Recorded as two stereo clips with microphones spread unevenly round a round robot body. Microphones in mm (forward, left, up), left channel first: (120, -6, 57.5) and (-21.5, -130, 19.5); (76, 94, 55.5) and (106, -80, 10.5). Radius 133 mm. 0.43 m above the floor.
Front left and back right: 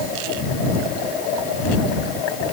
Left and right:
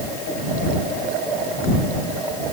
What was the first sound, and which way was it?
Only background noise.